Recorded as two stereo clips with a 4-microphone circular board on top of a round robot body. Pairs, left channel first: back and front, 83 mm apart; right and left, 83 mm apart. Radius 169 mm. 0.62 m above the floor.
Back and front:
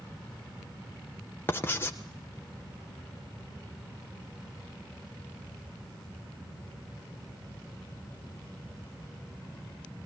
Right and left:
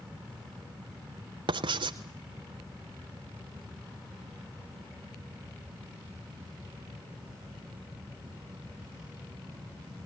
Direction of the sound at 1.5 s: 115° left.